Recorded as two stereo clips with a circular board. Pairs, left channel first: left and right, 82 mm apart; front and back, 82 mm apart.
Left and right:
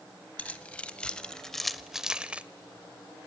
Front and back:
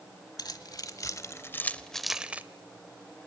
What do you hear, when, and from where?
0.4 s keys jangling: 20° left, 1.3 m; by 2.4 s 140° right, 0.7 m